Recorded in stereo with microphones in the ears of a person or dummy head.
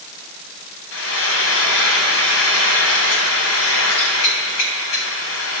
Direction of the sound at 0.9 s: 75° left (ahead or behind).